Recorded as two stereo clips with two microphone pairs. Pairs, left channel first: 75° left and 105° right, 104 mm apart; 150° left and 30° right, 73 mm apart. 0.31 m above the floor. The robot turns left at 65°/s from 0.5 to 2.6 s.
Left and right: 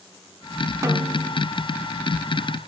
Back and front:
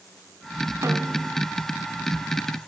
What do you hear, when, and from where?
0.8 s a snare drum: 60° right, 0.8 m; by 1.4 s 100° right, 0.8 m